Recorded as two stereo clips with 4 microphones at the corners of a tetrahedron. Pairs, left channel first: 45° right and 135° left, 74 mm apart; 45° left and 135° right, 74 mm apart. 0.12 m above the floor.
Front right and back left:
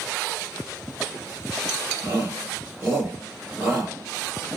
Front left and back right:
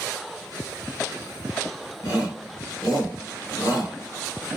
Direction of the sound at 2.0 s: 85° left.